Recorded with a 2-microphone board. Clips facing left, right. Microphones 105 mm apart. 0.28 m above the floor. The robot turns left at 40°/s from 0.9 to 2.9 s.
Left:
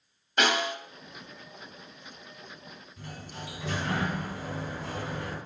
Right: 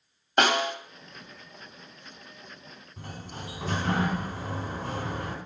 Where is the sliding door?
55° right (ahead or behind), 2 m.